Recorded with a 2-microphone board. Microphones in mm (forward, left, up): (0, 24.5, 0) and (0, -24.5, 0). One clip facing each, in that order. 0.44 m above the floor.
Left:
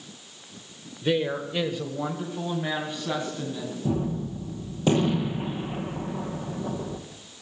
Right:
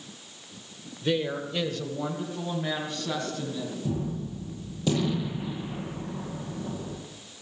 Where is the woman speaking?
15° left (ahead or behind), 1.1 m; by 3.8 s 20° left (ahead or behind), 3.5 m.